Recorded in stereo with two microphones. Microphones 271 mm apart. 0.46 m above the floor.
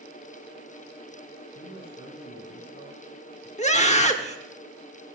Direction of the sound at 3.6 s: 25° left (ahead or behind).